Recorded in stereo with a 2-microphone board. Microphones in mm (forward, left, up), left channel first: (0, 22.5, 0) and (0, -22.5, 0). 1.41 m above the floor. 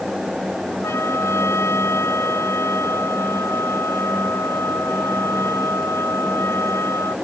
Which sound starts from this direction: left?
A trumpet, at 0.8 s.